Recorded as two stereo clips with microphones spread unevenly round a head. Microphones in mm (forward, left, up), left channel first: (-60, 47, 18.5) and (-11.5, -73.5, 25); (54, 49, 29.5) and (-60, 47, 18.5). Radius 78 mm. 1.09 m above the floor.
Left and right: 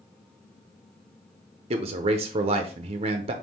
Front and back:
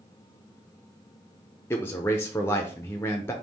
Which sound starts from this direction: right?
A man speaking, at 1.7 s.